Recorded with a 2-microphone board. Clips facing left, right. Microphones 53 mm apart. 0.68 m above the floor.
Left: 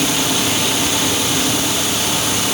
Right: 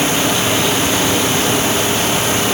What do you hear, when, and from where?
Only background noise.